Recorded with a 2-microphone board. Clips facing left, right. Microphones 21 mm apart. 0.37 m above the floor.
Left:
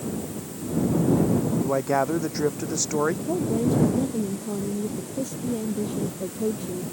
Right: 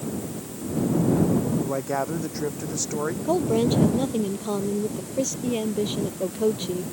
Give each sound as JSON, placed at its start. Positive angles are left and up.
{"t": 1.6, "sound": "a man speaking", "side_deg": 20}
{"t": 3.2, "sound": "a woman speaking", "side_deg": -80}